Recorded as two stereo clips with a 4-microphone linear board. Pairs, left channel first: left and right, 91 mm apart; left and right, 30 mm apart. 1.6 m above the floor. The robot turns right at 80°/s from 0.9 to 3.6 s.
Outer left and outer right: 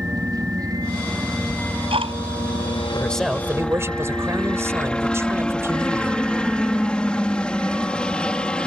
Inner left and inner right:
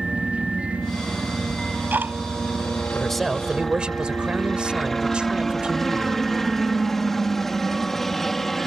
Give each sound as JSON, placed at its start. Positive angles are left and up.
{"t": 0.0, "sound": "a helicopter", "azimuth_deg": -45}
{"t": 1.5, "sound": "ticking", "side_deg": -60}
{"t": 2.9, "sound": "a man speaking", "azimuth_deg": 160}